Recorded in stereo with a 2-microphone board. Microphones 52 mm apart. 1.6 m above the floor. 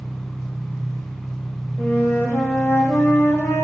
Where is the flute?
55° left (ahead or behind), 1.2 m.